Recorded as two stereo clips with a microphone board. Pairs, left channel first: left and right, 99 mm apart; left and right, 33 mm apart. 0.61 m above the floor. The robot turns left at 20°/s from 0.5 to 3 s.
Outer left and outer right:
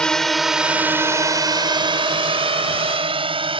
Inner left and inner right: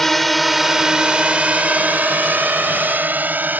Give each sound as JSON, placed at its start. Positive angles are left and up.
{"t": 0.0, "sound": "a drone", "side_deg": 10}